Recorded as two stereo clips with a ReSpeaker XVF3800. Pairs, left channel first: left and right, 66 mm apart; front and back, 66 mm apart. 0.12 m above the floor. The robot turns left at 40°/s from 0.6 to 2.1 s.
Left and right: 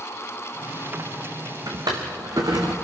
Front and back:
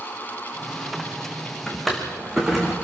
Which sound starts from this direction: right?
A drawer, at 1.7 s.